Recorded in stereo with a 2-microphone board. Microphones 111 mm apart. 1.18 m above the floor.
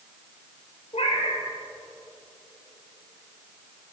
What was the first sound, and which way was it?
A cat meowing, 75° left (ahead or behind).